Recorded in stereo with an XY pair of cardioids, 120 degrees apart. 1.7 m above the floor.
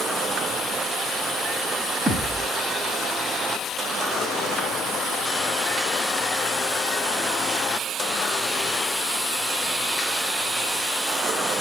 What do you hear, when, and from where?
2.1 s a thud: 5° left, 4.5 m